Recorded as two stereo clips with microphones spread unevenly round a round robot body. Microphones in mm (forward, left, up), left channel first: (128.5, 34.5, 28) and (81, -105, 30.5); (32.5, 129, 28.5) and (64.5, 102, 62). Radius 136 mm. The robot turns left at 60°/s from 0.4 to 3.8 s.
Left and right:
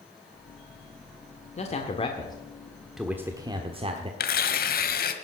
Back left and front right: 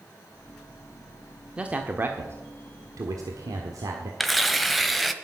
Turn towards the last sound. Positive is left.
turn(degrees=55)